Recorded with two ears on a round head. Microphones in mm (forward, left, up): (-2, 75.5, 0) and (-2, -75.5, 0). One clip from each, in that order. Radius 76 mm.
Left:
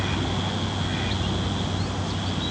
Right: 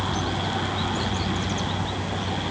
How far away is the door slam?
I don't hear a door slam.